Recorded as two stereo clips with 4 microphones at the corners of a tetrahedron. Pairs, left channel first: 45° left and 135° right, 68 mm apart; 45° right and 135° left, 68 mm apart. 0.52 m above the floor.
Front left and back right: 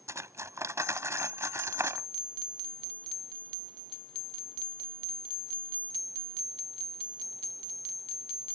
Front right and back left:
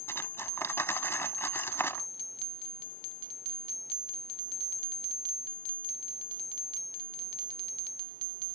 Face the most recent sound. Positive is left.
turn(degrees=-95)